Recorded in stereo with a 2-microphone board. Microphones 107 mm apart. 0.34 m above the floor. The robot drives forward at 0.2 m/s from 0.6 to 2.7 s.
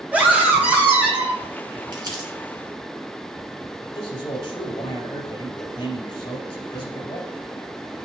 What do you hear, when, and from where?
0.1 s a scream: 15° right (ahead or behind), 1.6 m
1.9 s crumpling: 40° right (ahead or behind), 2 m
3.8 s a man speaking: 55° left (ahead or behind), 2.5 m